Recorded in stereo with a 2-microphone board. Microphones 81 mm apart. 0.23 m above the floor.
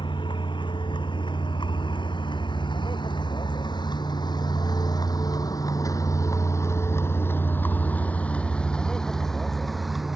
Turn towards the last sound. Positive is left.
turn(degrees=0)  # may be behind; listen again after turning